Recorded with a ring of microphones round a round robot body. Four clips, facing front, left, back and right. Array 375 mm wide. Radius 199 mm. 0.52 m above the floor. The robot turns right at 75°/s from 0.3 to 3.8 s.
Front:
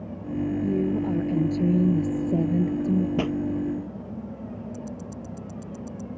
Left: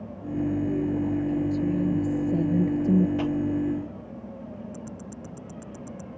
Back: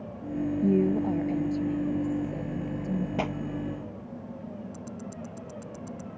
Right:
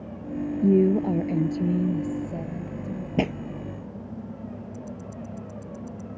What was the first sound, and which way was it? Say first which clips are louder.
A woman speaking: right 6 dB, back 3 dB; 105° right.